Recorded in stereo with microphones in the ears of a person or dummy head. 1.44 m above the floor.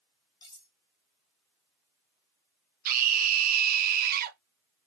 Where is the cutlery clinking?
25° left (ahead or behind), 2.0 m.